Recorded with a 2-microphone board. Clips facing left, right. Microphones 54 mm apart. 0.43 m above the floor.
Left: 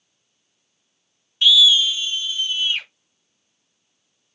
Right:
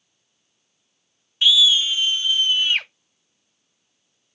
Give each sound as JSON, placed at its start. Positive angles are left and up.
{"t": 1.4, "sound": "a scream", "side_deg": -20, "distance_m": 0.7}